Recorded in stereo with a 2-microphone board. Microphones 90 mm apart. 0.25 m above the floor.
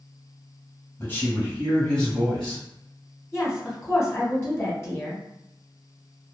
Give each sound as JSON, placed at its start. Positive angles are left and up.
{"t": 1.0, "sound": "a man speaking", "side_deg": 25, "distance_m": 1.2}
{"t": 3.3, "sound": "a woman speaking", "side_deg": 30, "distance_m": 1.1}